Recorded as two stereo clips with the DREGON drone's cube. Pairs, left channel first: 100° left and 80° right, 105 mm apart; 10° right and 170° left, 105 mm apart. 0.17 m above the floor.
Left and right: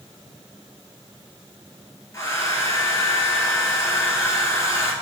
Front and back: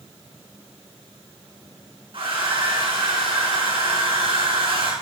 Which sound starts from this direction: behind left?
A hair dryer, at 2.1 s.